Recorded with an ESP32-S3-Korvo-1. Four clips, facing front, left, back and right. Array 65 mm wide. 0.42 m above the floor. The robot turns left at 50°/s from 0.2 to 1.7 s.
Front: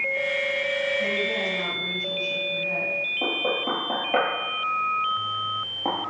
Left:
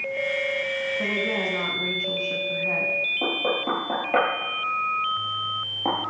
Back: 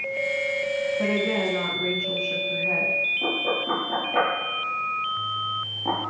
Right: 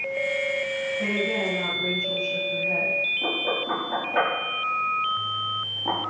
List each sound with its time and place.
1.0 s a woman speaking: 145° left, 4.5 m; by 3.0 s 110° left, 4.5 m
3.2 s knocking: 55° left, 7.5 m